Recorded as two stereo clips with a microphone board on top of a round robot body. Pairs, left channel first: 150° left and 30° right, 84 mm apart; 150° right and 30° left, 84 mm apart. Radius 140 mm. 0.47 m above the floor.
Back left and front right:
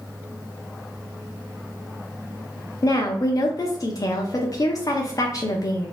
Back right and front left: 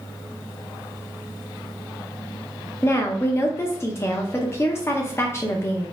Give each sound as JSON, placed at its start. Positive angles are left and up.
{"t": 2.8, "sound": "a woman speaking", "azimuth_deg": 165, "distance_m": 0.8}